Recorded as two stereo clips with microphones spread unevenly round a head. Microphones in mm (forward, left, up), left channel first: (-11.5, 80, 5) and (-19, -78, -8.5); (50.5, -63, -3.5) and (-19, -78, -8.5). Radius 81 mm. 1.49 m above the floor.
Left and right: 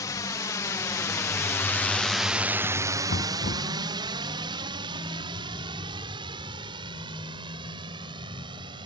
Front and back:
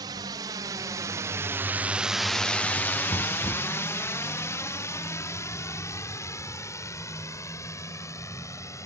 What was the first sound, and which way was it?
A drone, 155° left.